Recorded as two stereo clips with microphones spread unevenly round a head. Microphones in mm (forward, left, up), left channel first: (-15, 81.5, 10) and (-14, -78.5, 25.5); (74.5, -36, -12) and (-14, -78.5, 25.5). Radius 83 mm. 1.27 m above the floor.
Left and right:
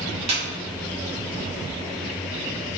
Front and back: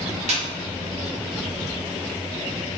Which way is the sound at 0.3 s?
145° right.